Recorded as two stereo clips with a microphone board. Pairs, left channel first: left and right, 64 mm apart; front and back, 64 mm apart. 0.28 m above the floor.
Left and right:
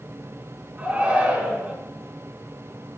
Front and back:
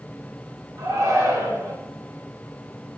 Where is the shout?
155° right, 2.5 m.